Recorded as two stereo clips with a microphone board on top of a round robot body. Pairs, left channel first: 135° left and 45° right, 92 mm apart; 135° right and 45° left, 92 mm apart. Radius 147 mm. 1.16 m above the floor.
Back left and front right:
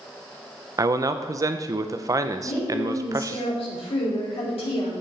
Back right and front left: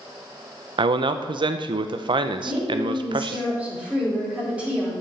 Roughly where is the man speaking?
Ahead.